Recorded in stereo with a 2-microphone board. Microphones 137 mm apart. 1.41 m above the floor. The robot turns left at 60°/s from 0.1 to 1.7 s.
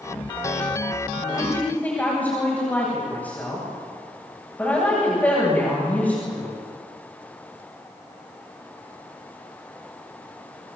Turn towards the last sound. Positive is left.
turn(degrees=10)  # may be behind; listen again after turning